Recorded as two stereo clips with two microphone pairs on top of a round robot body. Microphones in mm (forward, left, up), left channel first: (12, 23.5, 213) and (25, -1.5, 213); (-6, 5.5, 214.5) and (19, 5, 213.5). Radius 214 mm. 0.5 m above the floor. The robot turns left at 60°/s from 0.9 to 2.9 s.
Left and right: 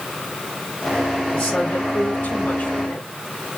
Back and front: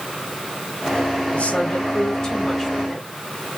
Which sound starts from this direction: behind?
A woman speaking, at 1.3 s.